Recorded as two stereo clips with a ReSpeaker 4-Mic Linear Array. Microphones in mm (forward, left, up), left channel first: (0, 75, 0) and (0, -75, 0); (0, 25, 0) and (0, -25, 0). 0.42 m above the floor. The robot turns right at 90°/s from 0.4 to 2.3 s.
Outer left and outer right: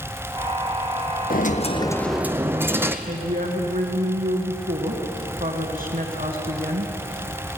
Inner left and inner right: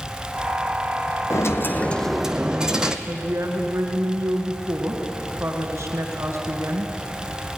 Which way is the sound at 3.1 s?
45° right (ahead or behind).